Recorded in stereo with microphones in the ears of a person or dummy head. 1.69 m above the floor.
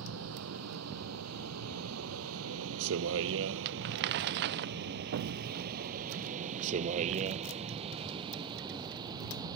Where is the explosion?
75° right (ahead or behind).